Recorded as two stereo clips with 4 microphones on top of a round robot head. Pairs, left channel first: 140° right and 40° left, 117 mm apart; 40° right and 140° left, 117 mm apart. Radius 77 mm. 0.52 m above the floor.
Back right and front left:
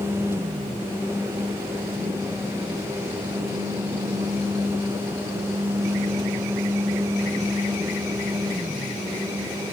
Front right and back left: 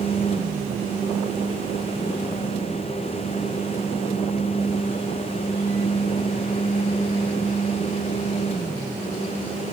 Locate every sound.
Only background noise.